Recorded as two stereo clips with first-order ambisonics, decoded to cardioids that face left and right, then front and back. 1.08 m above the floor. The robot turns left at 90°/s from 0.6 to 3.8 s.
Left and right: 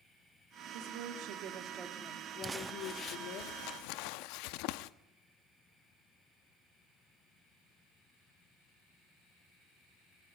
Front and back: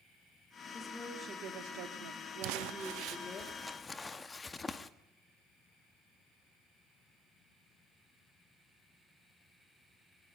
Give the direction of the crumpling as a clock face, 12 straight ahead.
5 o'clock.